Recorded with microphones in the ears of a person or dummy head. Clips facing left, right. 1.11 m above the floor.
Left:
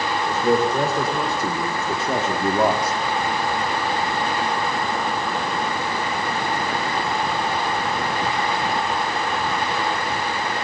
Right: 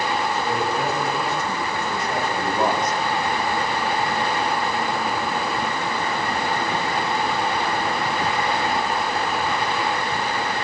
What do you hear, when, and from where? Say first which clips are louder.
0.3 s a man speaking: left 5 dB; 40° left (ahead or behind), 5 m; by 3.0 s 5° left (ahead or behind), 2.5 m